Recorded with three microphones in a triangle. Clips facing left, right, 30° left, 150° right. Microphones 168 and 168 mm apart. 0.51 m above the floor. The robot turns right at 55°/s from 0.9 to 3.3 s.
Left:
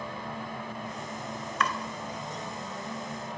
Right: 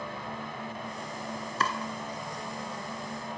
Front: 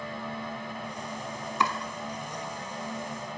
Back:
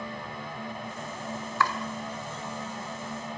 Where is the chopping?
40° right, 1.3 m; by 1.8 s 30° right, 1.3 m.